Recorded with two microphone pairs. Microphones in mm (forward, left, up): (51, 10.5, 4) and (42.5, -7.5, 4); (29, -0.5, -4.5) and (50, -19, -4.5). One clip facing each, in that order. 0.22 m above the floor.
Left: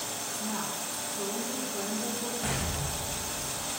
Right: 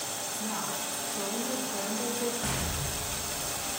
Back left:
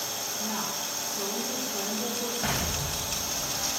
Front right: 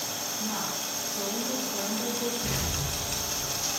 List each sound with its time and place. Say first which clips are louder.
0.4 s a woman speaking: right 1 dB, even; 115° right, 8 m
2.4 s an explosion: even, back left 2 dB; 150° left, 4.5 m